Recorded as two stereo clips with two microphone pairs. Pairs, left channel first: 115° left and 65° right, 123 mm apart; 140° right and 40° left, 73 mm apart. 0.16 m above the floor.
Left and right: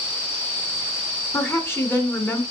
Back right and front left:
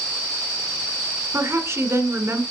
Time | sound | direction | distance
1.3 | a woman speaking | 55° left | 1.5 m